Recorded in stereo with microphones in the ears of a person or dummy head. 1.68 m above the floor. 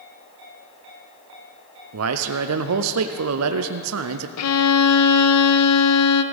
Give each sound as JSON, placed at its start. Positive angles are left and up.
{"t": 1.9, "sound": "a man speaking", "side_deg": -70, "distance_m": 0.6}
{"t": 4.4, "sound": "a violin", "side_deg": 80, "distance_m": 0.7}